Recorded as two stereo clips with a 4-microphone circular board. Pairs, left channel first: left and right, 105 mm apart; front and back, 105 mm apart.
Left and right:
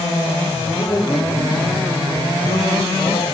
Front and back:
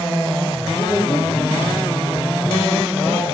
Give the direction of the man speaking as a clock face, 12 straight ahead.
10 o'clock.